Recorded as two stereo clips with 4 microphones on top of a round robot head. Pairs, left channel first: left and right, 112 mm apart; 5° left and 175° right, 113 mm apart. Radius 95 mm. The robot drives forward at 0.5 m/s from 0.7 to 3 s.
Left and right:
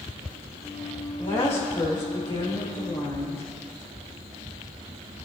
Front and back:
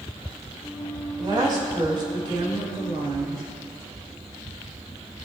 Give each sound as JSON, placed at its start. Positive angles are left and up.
{"t": 1.2, "sound": "a woman speaking", "azimuth_deg": 140, "distance_m": 3.0}